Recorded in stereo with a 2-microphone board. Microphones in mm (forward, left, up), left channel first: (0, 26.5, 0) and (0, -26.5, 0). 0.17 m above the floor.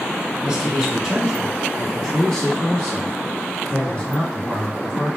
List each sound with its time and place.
0.4 s a man speaking: 15° right (ahead or behind), 1.7 m; by 5.2 s 40° left (ahead or behind), 2.5 m